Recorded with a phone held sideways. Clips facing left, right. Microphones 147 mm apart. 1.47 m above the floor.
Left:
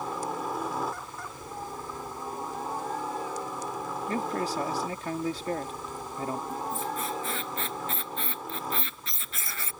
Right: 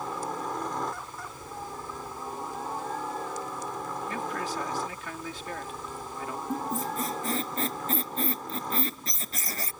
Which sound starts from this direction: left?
A man speaking, at 4.1 s.